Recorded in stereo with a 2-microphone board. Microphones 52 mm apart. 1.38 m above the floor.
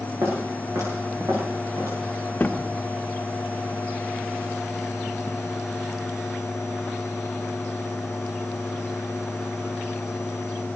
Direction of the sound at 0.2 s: 75° right (ahead or behind).